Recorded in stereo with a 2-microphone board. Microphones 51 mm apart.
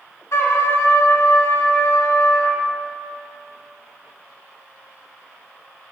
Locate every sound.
0.3 s a trumpet: 70° left (ahead or behind), 0.9 m